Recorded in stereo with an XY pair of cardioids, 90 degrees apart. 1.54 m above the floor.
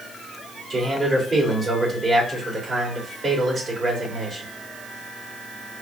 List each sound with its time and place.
0.7 s a man speaking: 35° right, 3 m